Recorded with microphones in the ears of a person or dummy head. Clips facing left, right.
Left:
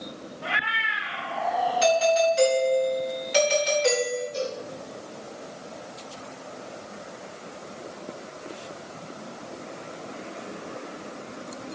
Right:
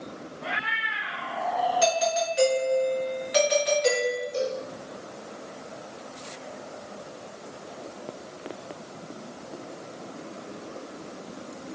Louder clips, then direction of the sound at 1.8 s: Left 8 dB; 20° right (ahead or behind).